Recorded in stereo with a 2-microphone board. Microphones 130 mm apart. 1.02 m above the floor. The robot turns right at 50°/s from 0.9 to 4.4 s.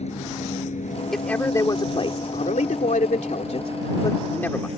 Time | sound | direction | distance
0.0 | a vehicle | 60° left (ahead or behind) | ?
1.1 | a man speaking | straight ahead | ?